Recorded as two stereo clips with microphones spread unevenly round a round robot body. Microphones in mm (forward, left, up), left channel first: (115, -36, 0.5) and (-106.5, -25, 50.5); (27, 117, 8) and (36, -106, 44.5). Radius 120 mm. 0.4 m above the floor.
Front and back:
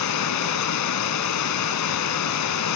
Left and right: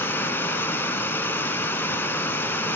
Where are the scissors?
No scissors in this recording.